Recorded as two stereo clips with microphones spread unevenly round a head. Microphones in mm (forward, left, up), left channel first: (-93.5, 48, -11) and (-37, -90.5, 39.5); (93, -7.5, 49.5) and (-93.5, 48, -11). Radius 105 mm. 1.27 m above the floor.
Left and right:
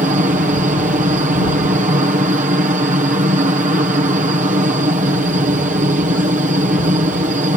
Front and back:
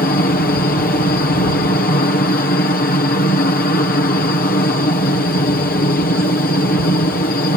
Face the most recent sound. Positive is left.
turn(degrees=-50)